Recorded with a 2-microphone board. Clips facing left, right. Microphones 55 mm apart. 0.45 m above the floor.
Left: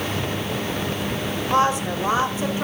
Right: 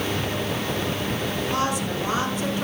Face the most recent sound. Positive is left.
turn(degrees=25)  # may be behind; listen again after turning